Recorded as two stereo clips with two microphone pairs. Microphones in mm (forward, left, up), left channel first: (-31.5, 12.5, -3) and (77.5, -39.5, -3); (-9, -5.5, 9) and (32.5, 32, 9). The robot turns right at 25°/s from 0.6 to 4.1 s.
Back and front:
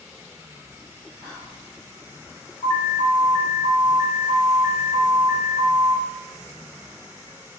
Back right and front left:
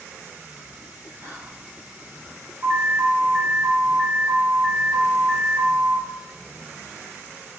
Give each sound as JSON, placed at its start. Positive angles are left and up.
{"t": 1.2, "sound": "whispering", "azimuth_deg": 75, "distance_m": 0.6}
{"t": 2.6, "sound": "an alarm", "azimuth_deg": 100, "distance_m": 1.0}